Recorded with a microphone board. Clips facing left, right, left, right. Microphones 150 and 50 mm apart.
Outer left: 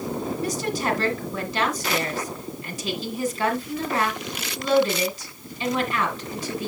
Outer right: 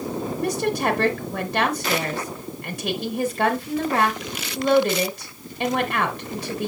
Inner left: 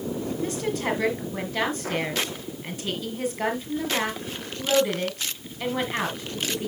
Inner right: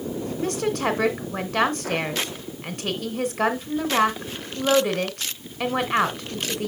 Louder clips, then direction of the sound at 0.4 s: Outer right 7 dB, inner right 5 dB; 60° right (ahead or behind).